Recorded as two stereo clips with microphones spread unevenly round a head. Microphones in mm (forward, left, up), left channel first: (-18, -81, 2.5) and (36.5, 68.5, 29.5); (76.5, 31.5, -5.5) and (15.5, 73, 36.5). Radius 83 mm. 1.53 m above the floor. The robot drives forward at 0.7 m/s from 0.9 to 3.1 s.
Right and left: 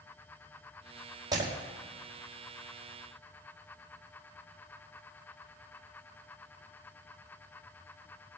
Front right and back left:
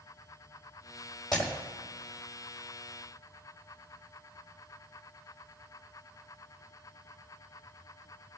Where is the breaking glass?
5° left, 4 m.